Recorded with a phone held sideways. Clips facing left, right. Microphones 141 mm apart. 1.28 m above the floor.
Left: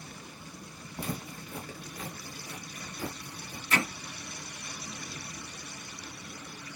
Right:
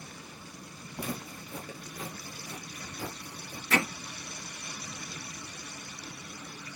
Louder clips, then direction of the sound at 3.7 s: Right 2 dB; 80° right.